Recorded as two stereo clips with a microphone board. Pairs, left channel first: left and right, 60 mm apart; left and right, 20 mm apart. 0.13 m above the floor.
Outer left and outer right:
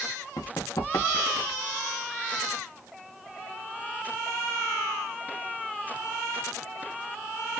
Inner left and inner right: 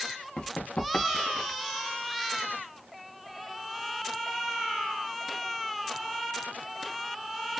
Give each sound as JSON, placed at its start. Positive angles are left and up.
{"t": 0.4, "sound": "running footsteps", "side_deg": 80, "distance_m": 2.5}